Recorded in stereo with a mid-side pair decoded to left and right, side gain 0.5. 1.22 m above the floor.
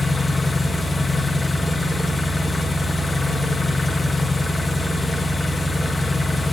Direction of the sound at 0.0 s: 20° left.